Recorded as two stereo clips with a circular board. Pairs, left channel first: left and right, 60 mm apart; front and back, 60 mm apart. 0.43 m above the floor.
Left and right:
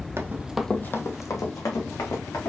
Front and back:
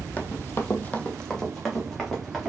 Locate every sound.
0.2 s running footsteps: 55° right, 0.7 m; by 2.5 s 90° left, 2 m